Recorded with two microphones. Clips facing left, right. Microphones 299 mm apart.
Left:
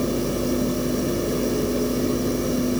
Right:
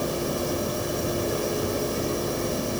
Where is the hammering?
No hammering in this recording.